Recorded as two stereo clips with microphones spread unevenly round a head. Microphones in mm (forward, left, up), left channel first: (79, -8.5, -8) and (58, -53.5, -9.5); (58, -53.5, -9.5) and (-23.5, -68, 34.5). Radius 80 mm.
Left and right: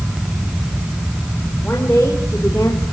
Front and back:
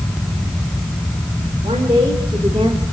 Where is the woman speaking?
140° left, 4.5 m; by 2.8 s 130° left, 3 m.